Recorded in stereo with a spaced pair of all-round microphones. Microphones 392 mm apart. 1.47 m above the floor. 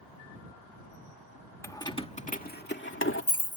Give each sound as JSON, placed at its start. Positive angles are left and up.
{"t": 1.6, "sound": "keys jangling", "side_deg": 5}